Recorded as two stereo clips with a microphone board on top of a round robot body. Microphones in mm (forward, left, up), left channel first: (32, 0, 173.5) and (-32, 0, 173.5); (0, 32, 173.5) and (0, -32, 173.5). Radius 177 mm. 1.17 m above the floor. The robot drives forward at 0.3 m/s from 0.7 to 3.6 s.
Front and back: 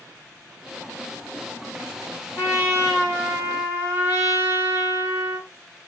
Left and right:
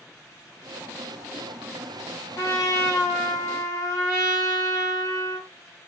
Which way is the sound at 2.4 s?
115° left.